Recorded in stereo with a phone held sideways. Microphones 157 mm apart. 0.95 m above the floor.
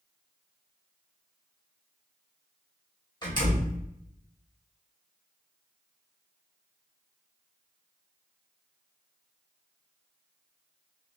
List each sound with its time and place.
3.2 s a door slam: 30° left (ahead or behind), 2 m